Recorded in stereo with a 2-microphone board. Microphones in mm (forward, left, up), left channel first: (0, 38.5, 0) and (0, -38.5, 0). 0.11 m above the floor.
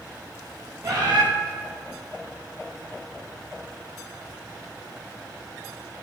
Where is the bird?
50° right (ahead or behind), 5.5 m.